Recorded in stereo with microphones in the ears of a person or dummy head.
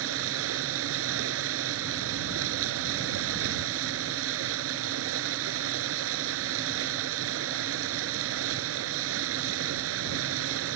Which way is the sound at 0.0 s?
80° right.